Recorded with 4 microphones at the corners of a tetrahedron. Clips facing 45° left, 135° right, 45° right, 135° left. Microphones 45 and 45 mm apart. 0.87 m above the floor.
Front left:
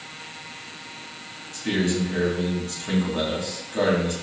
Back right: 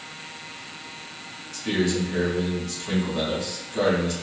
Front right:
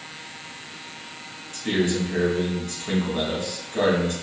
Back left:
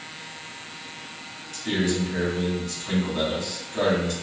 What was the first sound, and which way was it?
A man speaking, 5° right.